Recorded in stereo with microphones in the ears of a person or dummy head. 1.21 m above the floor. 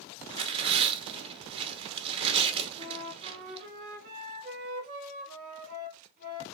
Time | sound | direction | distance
0.3 | tearing paper | 35° right (ahead or behind) | 0.9 m
2.8 | a flute | 50° right (ahead or behind) | 1.5 m